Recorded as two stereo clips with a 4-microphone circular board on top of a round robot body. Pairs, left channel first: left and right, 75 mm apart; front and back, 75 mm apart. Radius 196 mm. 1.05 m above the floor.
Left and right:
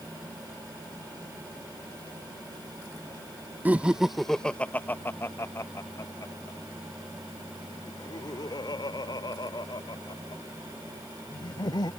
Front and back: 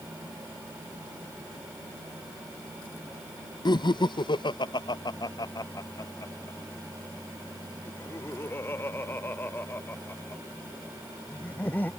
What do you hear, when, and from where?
3.6 s laughter: 20° right; by 11.9 s 65° left